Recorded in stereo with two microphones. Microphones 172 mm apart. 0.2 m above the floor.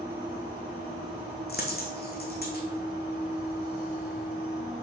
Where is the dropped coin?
65° left (ahead or behind), 1.9 m.